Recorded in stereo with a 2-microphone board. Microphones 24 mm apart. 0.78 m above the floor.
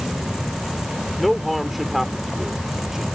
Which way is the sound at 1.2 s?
Centre (ahead or behind).